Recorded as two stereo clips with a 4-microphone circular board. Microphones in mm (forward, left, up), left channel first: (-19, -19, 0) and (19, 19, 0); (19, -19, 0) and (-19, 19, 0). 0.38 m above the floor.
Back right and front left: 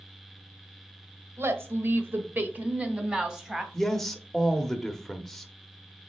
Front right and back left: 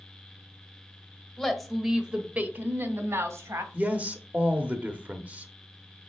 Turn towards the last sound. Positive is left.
turn(degrees=145)